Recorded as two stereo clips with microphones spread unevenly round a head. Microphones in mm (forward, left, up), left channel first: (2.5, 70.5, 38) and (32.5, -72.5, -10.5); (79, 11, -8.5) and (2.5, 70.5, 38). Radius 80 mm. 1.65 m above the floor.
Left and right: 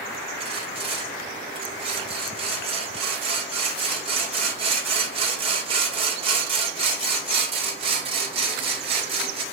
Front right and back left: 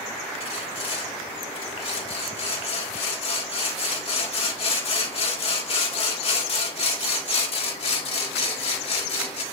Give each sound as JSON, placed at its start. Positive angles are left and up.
{"t": 0.4, "sound": "sawing", "azimuth_deg": -25, "distance_m": 2.5}